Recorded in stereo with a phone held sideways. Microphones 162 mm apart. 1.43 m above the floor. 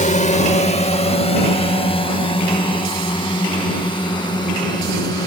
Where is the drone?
50° left (ahead or behind); by 5.3 s 25° left (ahead or behind).